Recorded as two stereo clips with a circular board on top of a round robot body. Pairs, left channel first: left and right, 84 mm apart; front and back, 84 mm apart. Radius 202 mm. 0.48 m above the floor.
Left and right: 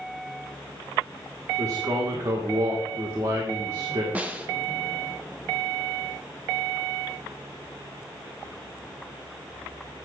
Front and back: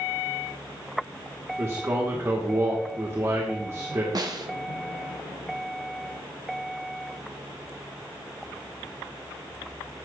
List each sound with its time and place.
1.6 s a man speaking: 130° right, 2 m
4.2 s a snare drum: 160° right, 1.7 m